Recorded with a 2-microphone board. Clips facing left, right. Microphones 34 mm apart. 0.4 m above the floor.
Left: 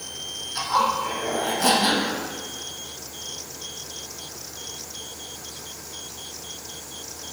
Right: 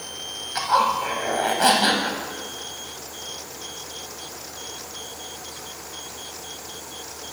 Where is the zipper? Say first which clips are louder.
Right 2 dB; 45° right (ahead or behind), 1.6 m.